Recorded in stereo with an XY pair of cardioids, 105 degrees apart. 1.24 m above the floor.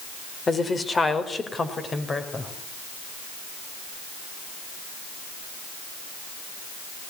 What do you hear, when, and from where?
0.5 s a woman speaking: 30° left, 4 m